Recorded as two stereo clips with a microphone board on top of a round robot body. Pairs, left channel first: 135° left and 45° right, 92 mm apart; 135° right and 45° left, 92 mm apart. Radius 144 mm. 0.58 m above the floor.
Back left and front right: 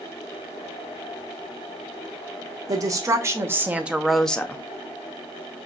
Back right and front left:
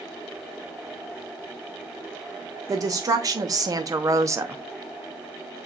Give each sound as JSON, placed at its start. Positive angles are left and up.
{"t": 2.7, "sound": "a woman speaking", "azimuth_deg": 0, "distance_m": 1.6}